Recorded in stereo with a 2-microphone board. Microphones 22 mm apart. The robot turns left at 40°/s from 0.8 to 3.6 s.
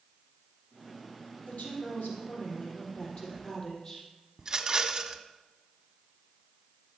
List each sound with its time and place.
1.4 s a woman speaking: 115° left, 5.5 m; by 4.1 s 25° left, 5.5 m
4.4 s a rattle: 30° right (ahead or behind), 1.0 m